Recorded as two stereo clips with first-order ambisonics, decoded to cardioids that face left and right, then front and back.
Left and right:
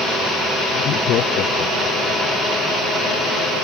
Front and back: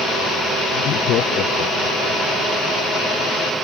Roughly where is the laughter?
Ahead left.